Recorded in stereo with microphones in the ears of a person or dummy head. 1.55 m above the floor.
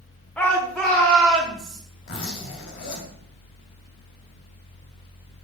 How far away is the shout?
About 2 m.